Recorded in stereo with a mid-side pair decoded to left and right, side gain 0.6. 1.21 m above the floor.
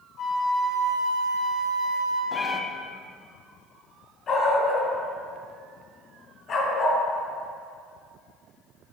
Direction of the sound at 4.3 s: 50° left.